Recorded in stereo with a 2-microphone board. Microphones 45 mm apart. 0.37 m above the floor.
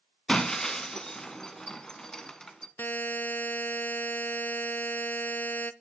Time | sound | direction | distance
0.3 | breaking glass | 15° left (ahead or behind) | 1.1 m
2.8 | a buzzer | 45° left (ahead or behind) | 0.5 m